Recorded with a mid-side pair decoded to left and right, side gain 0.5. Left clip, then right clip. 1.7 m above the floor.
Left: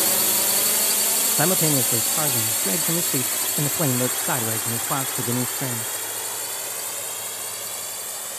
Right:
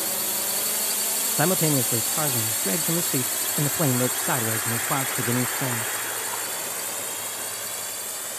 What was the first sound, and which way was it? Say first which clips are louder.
A drone: left 6 dB; 45° left.